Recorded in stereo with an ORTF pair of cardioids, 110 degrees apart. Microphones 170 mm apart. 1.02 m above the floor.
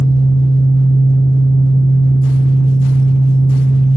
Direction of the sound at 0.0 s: 30° left.